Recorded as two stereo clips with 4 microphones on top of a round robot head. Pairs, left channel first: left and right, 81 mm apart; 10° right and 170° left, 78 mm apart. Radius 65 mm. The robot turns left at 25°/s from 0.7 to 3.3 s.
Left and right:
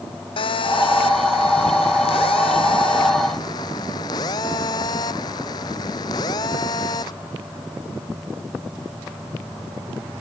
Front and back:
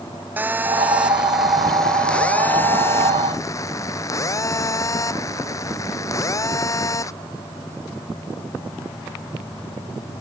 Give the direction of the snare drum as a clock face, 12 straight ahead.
No snare drum in this recording.